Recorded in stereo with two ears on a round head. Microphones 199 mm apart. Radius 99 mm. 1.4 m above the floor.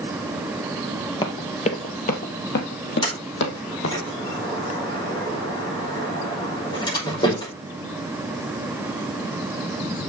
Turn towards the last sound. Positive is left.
turn(degrees=20)  # may be behind; listen again after turning